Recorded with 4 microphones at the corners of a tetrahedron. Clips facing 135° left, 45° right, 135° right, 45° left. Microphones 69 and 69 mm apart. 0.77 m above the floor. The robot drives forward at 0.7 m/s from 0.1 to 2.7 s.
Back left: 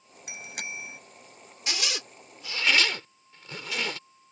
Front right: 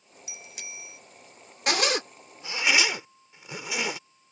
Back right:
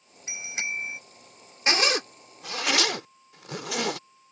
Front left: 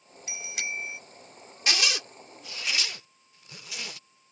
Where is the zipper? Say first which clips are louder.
Front right 8 dB, back right 5 dB; 75° right; by 4.0 s 120° right.